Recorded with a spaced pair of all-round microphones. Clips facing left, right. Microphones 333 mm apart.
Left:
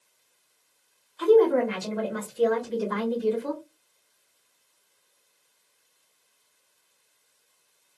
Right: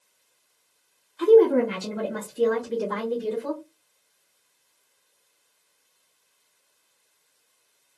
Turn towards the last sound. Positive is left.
turn(degrees=-60)  # may be behind; listen again after turning